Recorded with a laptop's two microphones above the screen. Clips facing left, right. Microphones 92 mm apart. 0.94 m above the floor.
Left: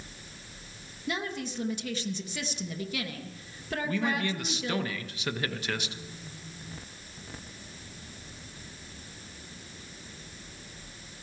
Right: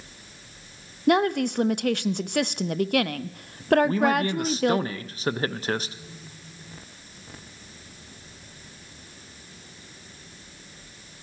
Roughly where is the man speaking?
Right.